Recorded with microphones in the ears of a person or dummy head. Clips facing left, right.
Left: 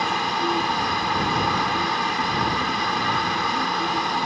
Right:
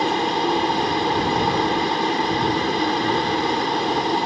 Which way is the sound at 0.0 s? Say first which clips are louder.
Right 5 dB; 30° right (ahead or behind).